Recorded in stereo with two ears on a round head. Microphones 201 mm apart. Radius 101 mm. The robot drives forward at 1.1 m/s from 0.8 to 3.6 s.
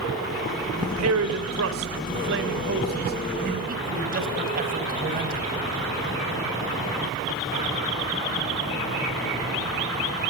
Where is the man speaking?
70° right (ahead or behind), 3 m; by 5.5 s 40° right (ahead or behind), 4 m.